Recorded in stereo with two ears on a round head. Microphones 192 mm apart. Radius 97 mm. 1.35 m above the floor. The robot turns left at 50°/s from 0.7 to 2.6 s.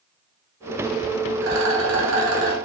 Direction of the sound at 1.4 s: 65° right.